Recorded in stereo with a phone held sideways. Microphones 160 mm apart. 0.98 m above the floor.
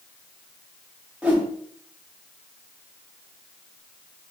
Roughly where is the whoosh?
Centre.